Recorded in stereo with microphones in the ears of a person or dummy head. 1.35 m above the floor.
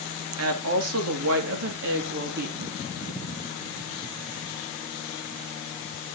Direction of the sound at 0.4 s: 75° right (ahead or behind).